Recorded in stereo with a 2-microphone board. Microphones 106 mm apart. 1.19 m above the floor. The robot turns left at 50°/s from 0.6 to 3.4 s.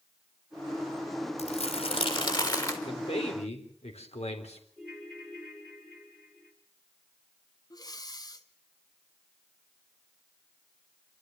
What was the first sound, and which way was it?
Crumpling, 95° left.